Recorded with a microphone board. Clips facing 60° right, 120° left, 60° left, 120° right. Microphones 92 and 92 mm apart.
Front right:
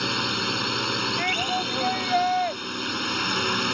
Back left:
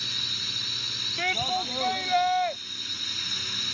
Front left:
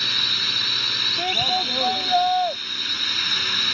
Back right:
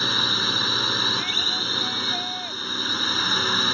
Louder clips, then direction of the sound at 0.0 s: Front right 15 dB, back right 5 dB; 65° right.